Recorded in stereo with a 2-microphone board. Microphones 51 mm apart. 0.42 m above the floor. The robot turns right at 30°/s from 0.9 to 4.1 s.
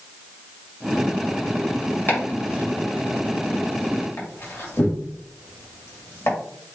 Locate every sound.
2.1 s chopping: 35° left (ahead or behind), 1.8 m; by 6.4 s 55° left (ahead or behind), 1.8 m